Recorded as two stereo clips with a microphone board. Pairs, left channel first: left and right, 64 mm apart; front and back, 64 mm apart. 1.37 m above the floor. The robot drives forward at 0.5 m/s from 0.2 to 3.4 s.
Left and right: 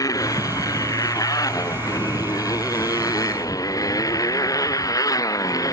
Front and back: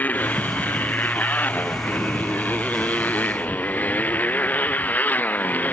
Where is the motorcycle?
60° left.